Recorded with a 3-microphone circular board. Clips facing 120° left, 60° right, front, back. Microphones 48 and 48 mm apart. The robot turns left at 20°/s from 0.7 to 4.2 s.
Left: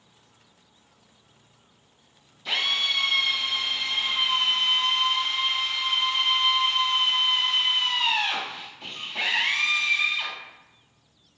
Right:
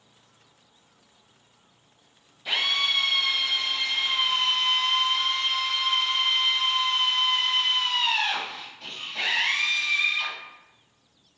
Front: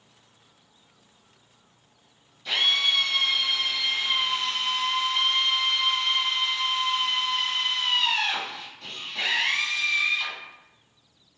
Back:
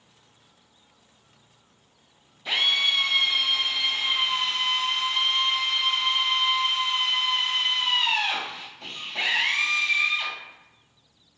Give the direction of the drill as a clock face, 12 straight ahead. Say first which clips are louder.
Right 1 dB, even; 4 o'clock.